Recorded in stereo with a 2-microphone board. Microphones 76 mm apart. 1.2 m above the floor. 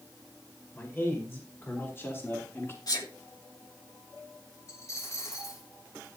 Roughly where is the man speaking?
Left.